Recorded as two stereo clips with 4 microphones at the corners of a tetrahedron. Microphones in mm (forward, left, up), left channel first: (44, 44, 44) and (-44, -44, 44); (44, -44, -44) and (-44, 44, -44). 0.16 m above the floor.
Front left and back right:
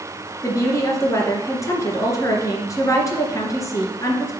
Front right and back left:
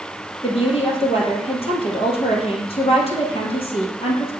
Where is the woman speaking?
15° right, 2.5 m.